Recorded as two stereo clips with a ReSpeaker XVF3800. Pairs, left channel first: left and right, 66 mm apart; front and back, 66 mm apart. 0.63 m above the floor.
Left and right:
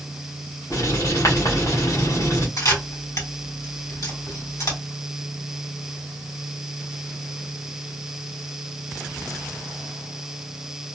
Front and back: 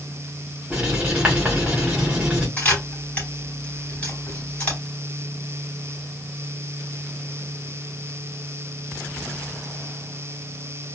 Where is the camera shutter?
70° left, 3 m.